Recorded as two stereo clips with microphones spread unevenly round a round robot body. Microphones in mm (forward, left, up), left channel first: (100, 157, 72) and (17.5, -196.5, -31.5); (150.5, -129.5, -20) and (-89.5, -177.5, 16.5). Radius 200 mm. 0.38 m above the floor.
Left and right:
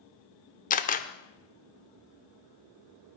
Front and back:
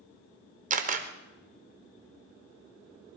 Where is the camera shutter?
155° left, 0.9 m.